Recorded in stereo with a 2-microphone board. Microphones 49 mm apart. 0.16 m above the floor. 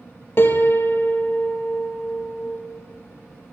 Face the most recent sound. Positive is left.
turn(degrees=50)  # may be behind; listen again after turning